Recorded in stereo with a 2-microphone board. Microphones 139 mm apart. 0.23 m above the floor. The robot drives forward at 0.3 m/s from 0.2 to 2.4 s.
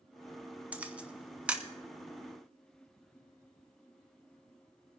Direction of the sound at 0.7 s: 10° right (ahead or behind).